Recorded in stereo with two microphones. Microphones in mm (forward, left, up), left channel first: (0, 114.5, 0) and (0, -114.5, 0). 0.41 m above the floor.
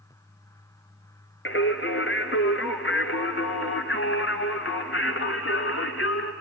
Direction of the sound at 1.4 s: 60° left (ahead or behind).